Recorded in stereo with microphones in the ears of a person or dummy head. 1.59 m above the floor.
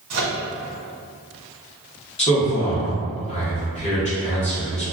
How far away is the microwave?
About 1.1 m.